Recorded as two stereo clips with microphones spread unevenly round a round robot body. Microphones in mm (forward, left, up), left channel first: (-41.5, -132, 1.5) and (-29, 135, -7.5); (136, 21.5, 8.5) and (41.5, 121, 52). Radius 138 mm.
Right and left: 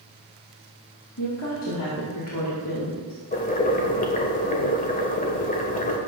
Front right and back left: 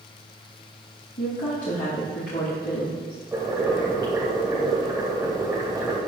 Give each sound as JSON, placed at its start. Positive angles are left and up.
{"t": 1.2, "sound": "a woman speaking", "azimuth_deg": -55, "distance_m": 2.5}
{"t": 3.3, "sound": "boiling", "azimuth_deg": -150, "distance_m": 1.5}